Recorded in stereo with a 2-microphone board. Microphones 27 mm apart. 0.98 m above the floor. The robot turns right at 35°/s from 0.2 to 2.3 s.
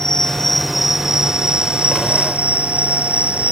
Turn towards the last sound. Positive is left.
turn(degrees=-125)